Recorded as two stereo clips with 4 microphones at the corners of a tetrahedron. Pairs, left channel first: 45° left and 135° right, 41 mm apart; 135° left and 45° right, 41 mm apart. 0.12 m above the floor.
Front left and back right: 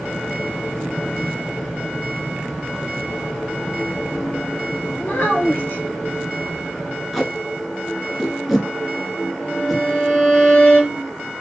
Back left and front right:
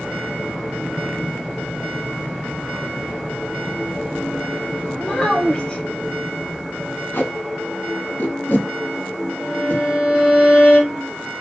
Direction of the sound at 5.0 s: 75° left.